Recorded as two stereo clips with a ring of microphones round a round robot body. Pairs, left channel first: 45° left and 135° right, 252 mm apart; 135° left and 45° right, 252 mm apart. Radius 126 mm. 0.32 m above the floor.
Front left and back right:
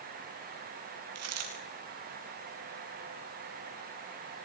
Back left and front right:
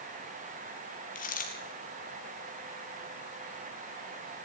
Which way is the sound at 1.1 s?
165° right.